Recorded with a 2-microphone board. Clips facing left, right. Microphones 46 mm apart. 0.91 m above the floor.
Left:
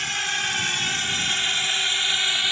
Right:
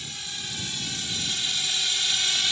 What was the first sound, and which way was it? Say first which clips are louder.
A drone: left 12 dB; 70° left (ahead or behind).